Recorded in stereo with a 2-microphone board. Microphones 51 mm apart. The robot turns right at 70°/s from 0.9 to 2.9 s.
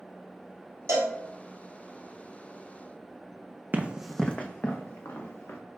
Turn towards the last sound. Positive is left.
turn(degrees=65)  # may be behind; listen again after turning